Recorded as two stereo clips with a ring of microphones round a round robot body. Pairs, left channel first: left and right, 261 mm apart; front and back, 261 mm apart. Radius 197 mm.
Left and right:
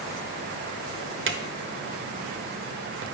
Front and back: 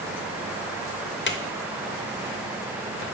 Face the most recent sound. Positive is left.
turn(degrees=-50)